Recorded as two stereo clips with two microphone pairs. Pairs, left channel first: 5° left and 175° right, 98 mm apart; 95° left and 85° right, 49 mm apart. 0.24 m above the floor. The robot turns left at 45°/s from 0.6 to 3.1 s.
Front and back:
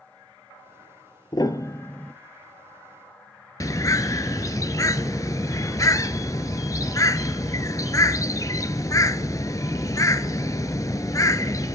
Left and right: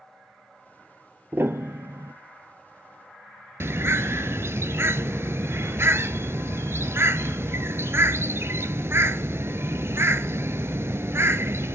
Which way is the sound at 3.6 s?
50° right.